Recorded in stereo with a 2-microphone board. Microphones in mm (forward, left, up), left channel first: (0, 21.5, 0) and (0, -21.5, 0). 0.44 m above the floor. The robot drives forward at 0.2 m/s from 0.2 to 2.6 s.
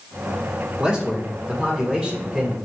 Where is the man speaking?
15° right (ahead or behind), 1.4 m; by 2.6 s 10° right (ahead or behind), 1.5 m.